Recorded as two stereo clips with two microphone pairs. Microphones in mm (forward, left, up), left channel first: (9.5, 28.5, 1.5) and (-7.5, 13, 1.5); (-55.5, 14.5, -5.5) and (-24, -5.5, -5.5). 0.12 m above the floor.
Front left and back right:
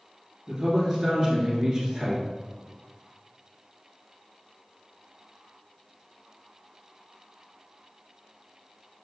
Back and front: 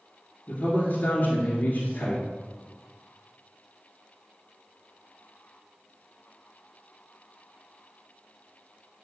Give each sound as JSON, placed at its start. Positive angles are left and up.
{"t": 0.5, "sound": "a man speaking", "azimuth_deg": 165, "distance_m": 1.7}